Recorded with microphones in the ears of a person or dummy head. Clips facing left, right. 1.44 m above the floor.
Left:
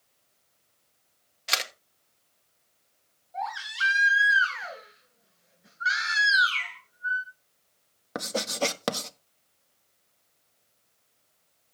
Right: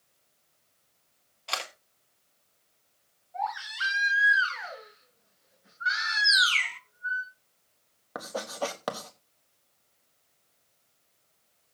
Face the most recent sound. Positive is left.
turn(degrees=35)  # may be behind; listen again after turning